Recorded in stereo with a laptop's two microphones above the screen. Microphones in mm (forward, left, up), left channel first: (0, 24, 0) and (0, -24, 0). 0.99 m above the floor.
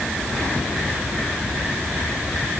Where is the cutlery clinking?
No cutlery clinking in this recording.